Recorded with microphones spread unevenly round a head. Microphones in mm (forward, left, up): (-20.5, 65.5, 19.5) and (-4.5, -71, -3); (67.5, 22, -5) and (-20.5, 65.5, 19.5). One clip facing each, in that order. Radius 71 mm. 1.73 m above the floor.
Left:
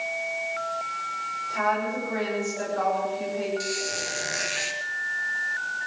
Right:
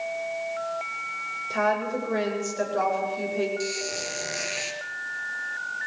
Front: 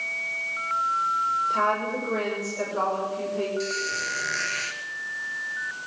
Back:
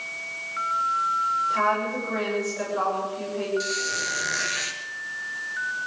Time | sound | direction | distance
1.5 | a woman speaking | 95° right | 8 m
3.6 | a squeak | 175° left | 1.9 m